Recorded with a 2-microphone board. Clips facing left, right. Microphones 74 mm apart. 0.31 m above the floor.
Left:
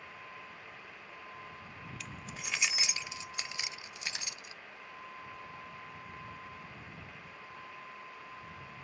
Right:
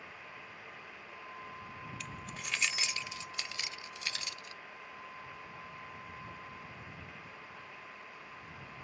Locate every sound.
2.0 s keys jangling: centre (ahead or behind); by 4.5 s 20° left (ahead or behind)